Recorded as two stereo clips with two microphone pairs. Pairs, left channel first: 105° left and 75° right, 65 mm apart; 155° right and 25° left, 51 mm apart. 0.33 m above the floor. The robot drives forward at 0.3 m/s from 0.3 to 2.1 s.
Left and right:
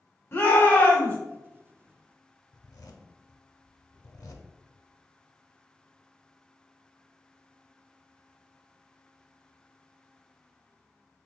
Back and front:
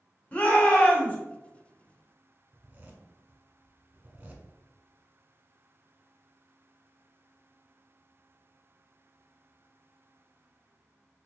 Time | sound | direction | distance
0.3 | a shout | 150° left | 1.6 m
2.5 | a zipper | 85° left | 0.5 m